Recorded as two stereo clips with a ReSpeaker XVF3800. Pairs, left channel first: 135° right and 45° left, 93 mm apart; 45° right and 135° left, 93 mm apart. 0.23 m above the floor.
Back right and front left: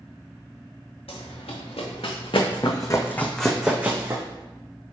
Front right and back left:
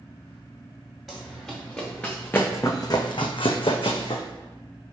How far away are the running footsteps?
About 1.2 m.